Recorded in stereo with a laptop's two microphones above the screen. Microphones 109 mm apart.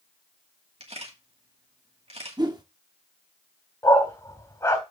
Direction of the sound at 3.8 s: 30° left (ahead or behind).